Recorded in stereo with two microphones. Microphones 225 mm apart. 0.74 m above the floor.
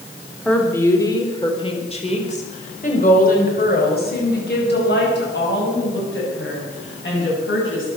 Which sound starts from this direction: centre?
A woman speaking, at 0.5 s.